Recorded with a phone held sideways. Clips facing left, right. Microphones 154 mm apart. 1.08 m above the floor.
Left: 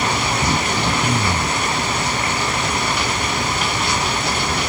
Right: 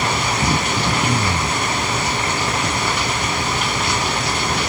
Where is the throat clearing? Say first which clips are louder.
Even; centre (ahead or behind).